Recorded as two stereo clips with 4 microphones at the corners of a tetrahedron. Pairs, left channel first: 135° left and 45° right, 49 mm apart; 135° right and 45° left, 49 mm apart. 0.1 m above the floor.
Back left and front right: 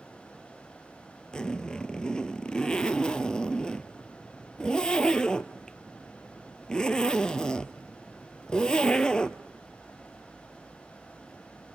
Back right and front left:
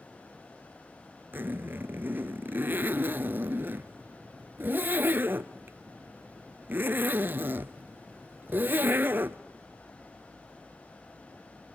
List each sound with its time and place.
1.3 s a zipper: 70° left, 0.6 m